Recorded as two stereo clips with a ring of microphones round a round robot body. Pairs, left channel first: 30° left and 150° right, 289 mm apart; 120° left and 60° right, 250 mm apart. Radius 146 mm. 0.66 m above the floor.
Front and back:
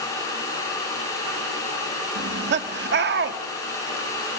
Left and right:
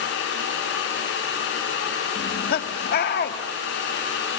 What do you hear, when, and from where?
2.1 s laughter: 165° left, 1.5 m